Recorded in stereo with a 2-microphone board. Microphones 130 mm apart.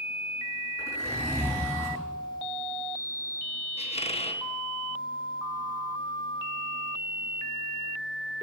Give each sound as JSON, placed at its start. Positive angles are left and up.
{"t": 0.8, "sound": "a zipper", "side_deg": 20, "distance_m": 8.0}
{"t": 3.8, "sound": "a squeak", "side_deg": 50, "distance_m": 0.8}